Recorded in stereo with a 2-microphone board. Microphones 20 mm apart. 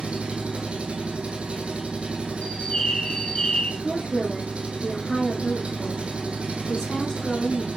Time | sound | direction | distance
0.0 | an engine running | 55° right (ahead or behind) | 1.7 m
2.4 | a bird | 45° left (ahead or behind) | 2 m
3.8 | a woman speaking | 45° left (ahead or behind) | 3.5 m